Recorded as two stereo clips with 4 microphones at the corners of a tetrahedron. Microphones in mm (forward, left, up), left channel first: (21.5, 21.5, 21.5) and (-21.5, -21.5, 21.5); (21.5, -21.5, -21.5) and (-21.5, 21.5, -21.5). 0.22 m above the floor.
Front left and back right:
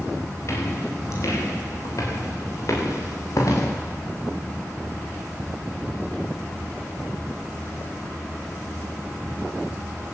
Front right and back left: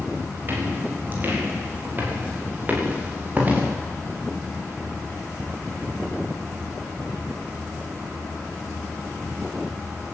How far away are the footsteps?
About 9.5 m.